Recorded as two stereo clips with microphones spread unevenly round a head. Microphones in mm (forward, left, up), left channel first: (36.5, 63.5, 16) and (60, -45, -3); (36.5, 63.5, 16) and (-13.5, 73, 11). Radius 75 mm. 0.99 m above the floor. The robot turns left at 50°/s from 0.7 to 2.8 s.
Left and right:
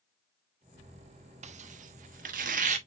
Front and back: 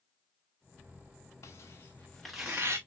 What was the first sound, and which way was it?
Tearing paper, 55° right.